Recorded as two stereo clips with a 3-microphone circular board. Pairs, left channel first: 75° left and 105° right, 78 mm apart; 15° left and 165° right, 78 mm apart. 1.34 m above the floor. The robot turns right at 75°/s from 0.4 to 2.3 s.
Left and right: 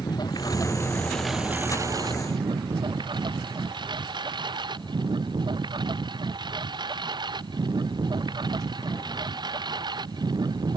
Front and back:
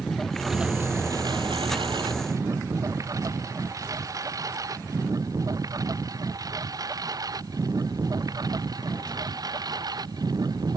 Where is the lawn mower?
100° left; by 10.8 s 130° right.